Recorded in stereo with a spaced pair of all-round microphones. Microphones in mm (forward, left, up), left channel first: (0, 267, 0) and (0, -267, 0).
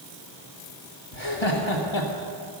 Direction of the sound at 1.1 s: 55° left (ahead or behind).